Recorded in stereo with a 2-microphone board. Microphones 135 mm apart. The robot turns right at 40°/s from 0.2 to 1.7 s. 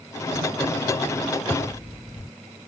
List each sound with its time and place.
1.5 s tearing paper: 15° left (ahead or behind); by 2.3 s 20° left (ahead or behind)